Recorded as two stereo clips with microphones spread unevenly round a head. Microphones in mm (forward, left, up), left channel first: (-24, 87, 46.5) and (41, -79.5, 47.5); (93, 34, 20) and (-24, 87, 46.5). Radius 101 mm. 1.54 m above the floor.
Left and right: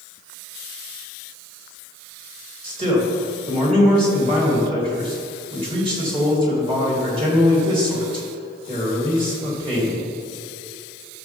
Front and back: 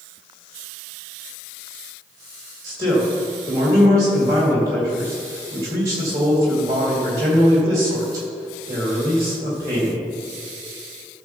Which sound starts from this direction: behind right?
A man speaking, at 2.6 s.